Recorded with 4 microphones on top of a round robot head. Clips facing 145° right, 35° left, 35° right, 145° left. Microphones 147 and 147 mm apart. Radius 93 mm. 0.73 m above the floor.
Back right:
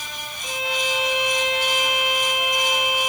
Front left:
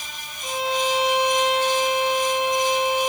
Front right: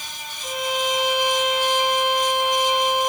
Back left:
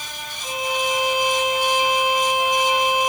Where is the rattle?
I don't hear a rattle.